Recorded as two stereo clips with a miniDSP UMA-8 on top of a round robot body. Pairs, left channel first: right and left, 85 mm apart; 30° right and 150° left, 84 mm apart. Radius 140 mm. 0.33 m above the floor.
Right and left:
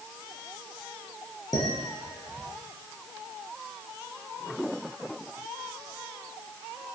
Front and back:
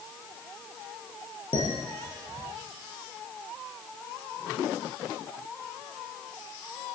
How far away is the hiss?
No hiss in this recording.